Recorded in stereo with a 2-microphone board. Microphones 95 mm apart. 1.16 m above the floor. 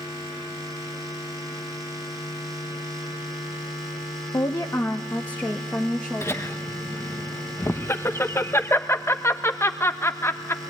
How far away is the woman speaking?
About 1.0 m.